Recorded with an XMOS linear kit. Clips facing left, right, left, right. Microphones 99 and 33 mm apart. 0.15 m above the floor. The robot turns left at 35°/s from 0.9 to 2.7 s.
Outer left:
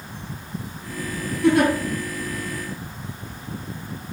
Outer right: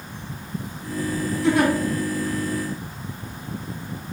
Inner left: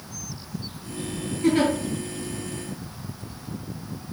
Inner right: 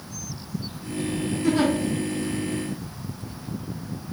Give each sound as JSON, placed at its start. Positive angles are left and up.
{"t": 1.4, "sound": "a giggle", "side_deg": 60, "distance_m": 1.1}